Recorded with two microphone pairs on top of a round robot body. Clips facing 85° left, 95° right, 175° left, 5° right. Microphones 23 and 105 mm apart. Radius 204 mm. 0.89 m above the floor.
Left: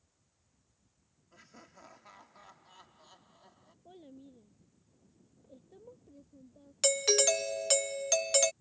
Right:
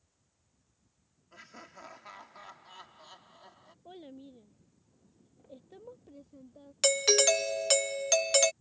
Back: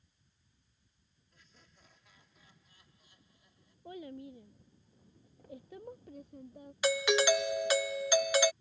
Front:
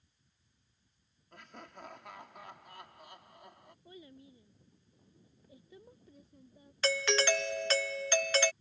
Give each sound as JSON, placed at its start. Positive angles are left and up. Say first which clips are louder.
{"t": 1.3, "sound": "laughter", "louder": "right 6 dB, front 16 dB", "azimuth_deg": -35}
{"t": 3.9, "sound": "a child speaking", "louder": "right 5 dB, back 10 dB", "azimuth_deg": -155}
{"t": 6.8, "sound": "a doorbell", "louder": "right 3 dB, back 3 dB", "azimuth_deg": -130}